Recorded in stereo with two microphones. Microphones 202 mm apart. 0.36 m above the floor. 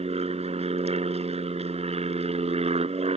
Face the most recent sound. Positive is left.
turn(degrees=-30)  # may be behind; listen again after turning